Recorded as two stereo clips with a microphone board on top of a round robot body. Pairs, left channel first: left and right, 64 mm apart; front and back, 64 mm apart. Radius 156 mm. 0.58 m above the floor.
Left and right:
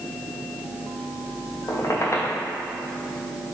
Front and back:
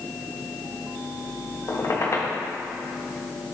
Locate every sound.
1.7 s a squeak: 45° left, 1.1 m